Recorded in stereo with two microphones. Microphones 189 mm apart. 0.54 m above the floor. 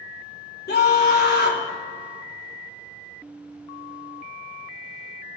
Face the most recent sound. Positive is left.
turn(degrees=55)  # may be behind; listen again after turning